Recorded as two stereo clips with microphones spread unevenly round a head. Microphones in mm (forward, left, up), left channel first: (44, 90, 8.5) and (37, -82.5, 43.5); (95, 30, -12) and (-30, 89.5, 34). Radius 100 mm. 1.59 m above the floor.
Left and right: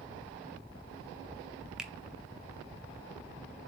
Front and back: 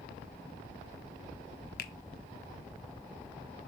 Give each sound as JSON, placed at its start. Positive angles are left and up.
{"t": 1.8, "sound": "a finger snap", "azimuth_deg": -10, "distance_m": 0.7}